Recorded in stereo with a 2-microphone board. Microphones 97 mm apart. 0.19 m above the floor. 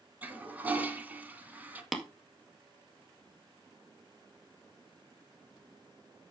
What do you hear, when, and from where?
0.2 s a toilet flushing: 15° right (ahead or behind), 1.7 m
1.9 s tapping: centre (ahead or behind), 1.8 m